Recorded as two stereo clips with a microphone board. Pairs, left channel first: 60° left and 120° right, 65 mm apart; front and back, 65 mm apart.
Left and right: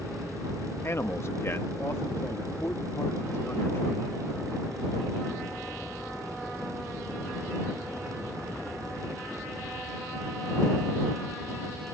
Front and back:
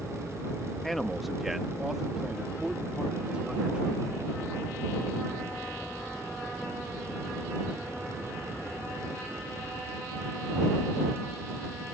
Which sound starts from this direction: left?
A man speaking, at 0.8 s.